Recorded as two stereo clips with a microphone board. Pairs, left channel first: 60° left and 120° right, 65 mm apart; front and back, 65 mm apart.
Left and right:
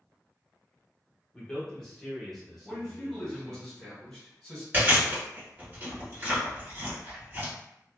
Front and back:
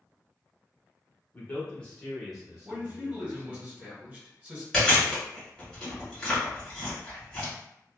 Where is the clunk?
I don't hear a clunk.